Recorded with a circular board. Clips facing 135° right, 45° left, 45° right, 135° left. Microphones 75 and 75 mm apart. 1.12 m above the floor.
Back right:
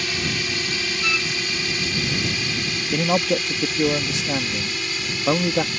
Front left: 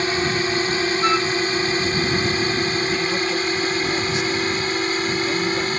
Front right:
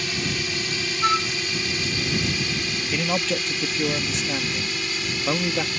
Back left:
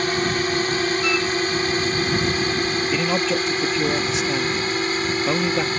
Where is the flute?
Straight ahead.